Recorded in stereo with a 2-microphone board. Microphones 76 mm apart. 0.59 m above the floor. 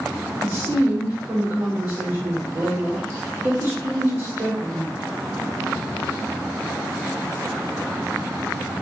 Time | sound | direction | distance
0.4 | a woman speaking | 50° right (ahead or behind) | 1.5 m